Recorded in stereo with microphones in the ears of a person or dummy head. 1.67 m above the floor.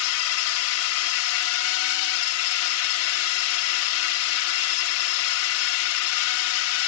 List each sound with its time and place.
0.0 s a drone: 75° left (ahead or behind)